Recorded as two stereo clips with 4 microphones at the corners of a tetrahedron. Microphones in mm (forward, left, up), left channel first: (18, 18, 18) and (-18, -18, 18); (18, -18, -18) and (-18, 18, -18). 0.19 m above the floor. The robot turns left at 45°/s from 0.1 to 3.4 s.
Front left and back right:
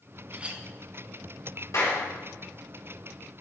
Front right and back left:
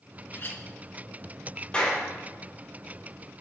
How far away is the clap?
About 4.5 m.